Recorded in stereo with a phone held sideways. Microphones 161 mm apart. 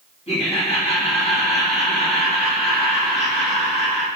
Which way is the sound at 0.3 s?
35° left (ahead or behind).